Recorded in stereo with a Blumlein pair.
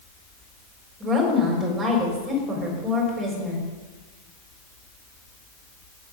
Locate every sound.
1.0 s a woman speaking: 25° right, 4 m